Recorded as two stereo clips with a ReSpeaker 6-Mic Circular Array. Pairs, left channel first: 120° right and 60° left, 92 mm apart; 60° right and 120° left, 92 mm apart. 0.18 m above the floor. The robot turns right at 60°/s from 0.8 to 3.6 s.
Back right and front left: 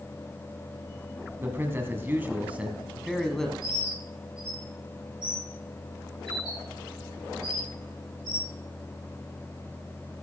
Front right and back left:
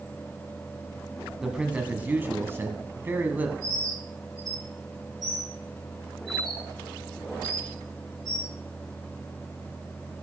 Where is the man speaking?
40° left, 1.7 m; by 3.5 s 170° left, 1.7 m.